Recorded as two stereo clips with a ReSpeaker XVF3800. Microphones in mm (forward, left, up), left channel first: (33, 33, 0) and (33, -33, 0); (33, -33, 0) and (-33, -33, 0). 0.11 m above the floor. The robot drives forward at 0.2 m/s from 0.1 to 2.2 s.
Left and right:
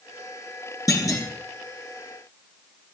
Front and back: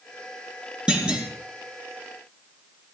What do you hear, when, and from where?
0.9 s a clunk: 110° left, 2 m